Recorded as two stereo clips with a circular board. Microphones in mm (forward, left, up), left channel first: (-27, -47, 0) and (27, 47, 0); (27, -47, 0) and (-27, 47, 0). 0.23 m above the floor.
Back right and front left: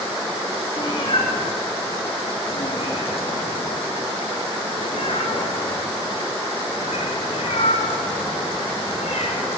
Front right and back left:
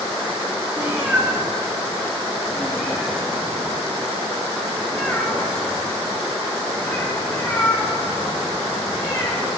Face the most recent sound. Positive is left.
turn(degrees=-125)